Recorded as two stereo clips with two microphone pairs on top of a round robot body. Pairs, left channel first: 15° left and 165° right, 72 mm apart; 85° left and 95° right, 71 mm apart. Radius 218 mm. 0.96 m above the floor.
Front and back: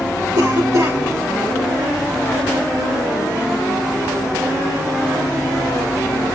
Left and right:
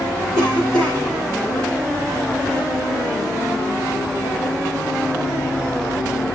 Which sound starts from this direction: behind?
A cough, at 0.3 s.